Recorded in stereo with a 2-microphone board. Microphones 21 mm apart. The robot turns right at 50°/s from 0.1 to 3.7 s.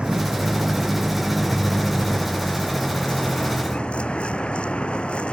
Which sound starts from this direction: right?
A vehicle, at 0.0 s.